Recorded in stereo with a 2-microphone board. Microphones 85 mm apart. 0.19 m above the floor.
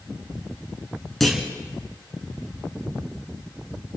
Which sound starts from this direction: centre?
A clunk, at 1.2 s.